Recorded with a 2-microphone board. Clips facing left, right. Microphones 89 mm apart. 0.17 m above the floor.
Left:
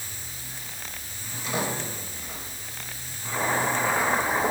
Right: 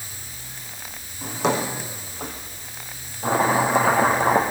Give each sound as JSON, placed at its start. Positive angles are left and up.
{"t": 1.2, "sound": "a drawer", "side_deg": -80, "distance_m": 6.5}
{"t": 3.2, "sound": "chopping", "side_deg": -70, "distance_m": 6.0}